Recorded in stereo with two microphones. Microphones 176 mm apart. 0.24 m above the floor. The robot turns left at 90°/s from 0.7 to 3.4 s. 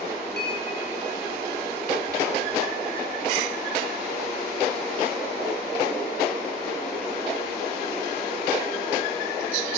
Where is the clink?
65° left (ahead or behind), 3.5 m.